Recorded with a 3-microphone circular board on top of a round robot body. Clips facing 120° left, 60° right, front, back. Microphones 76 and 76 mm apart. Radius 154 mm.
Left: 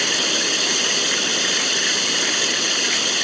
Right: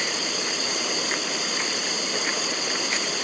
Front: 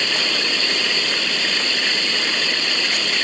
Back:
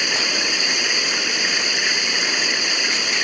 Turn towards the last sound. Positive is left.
turn(degrees=105)